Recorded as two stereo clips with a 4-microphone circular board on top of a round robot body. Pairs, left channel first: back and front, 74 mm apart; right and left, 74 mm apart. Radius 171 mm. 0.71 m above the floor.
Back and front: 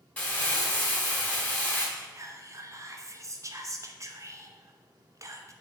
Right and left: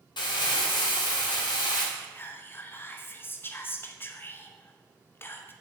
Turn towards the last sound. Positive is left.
turn(degrees=-35)